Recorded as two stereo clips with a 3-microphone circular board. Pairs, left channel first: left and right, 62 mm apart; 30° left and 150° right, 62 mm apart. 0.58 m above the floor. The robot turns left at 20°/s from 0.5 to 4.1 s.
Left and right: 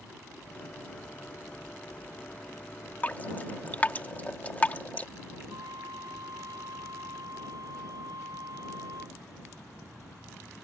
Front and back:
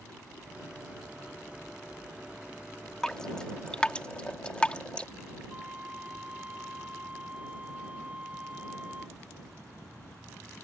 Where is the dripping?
95° left; by 5.1 s 75° left.